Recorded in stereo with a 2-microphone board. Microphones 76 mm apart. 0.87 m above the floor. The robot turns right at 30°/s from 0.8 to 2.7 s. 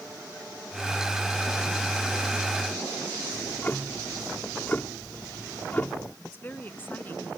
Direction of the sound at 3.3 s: 25° left (ahead or behind).